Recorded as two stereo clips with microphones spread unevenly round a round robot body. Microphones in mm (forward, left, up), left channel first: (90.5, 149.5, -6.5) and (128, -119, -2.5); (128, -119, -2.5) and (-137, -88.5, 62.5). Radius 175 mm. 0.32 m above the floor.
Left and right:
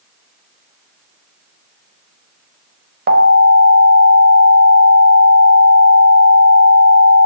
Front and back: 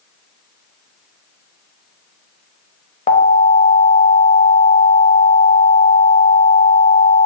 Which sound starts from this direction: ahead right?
An alarm, at 3.1 s.